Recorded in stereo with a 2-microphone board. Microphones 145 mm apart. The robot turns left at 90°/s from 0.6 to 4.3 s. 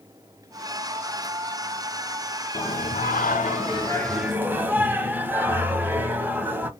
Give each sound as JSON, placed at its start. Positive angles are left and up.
{"t": 2.5, "sound": "singing", "azimuth_deg": 145, "distance_m": 0.5}